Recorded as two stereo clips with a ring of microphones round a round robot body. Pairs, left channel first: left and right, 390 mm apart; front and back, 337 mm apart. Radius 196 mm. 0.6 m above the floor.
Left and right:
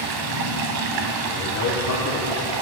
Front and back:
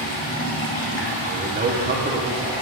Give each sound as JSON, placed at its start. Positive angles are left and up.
{"t": 0.0, "sound": "running water", "azimuth_deg": -60, "distance_m": 0.8}
{"t": 1.3, "sound": "a man speaking", "azimuth_deg": 125, "distance_m": 0.7}